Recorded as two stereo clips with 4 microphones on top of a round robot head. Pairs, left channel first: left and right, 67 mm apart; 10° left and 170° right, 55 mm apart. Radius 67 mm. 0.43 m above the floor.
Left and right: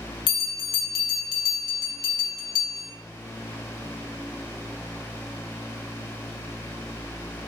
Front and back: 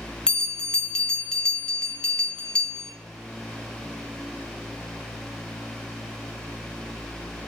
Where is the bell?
85° left, 0.6 m.